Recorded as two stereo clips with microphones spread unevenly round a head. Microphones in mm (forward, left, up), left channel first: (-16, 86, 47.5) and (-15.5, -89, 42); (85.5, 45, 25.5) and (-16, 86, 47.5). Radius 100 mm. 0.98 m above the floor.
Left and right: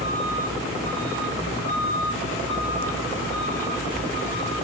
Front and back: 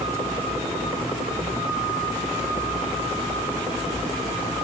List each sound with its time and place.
Only background noise.